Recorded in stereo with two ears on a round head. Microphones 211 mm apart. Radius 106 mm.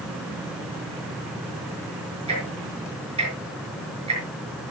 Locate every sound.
2.3 s ticking: 25° right (ahead or behind), 6 m